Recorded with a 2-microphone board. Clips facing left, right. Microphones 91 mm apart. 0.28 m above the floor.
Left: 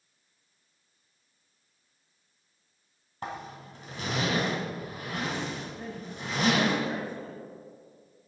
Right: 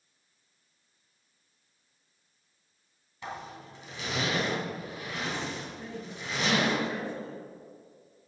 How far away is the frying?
No frying in this recording.